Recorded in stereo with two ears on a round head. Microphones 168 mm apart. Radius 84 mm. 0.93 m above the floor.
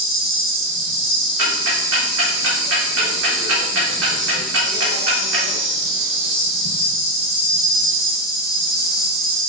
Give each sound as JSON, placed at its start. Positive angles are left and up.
{"t": 0.0, "sound": "an insect", "side_deg": -25, "distance_m": 0.8}
{"t": 1.4, "sound": "ticking", "side_deg": -75, "distance_m": 0.8}